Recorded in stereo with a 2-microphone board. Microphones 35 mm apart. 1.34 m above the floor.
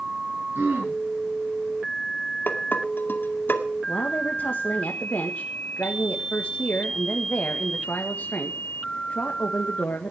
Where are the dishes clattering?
75° left (ahead or behind), 2 m.